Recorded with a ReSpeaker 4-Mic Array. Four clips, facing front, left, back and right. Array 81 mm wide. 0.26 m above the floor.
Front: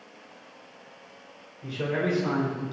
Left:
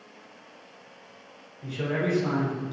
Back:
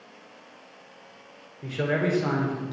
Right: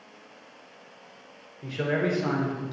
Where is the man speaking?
145° right, 4.5 m.